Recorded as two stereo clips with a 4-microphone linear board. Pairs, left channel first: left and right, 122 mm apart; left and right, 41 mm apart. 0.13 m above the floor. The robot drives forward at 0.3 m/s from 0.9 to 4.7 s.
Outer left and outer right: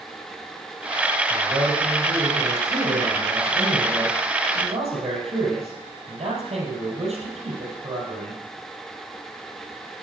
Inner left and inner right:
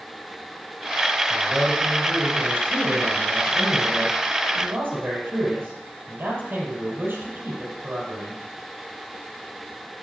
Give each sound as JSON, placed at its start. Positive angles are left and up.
{"t": 1.3, "sound": "a man speaking", "side_deg": -60, "distance_m": 3.0}